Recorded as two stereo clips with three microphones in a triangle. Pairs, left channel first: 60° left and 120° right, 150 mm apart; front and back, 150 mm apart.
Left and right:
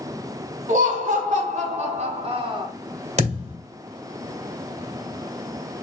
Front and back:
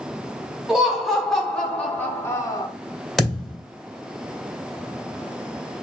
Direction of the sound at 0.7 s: 95° right.